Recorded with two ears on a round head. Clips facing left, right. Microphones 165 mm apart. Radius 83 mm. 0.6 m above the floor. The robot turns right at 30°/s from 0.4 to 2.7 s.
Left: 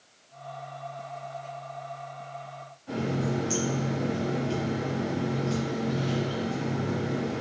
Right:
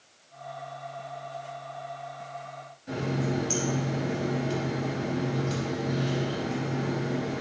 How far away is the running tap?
About 2.5 m.